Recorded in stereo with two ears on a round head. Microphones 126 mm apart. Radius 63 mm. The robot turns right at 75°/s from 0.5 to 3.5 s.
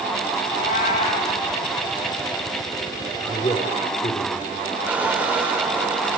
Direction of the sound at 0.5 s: 90° left.